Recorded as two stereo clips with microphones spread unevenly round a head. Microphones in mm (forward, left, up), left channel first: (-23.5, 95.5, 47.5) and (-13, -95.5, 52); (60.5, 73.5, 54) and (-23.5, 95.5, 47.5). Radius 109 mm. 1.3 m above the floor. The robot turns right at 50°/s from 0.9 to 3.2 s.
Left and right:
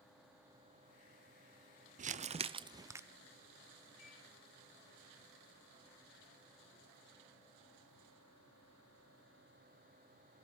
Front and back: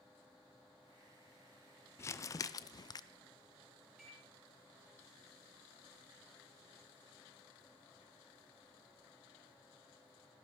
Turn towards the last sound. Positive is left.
turn(degrees=75)